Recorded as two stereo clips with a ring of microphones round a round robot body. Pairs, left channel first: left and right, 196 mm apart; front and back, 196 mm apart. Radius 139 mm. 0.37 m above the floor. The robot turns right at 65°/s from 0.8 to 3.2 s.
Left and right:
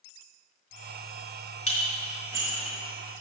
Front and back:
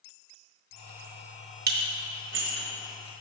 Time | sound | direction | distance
1.7 | dishes clattering | 150° left | 1.3 m